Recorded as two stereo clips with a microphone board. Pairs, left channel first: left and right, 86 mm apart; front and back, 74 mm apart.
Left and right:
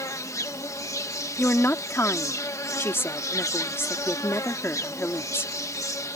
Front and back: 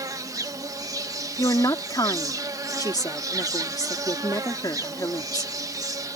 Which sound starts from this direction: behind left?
An insect, at 0.0 s.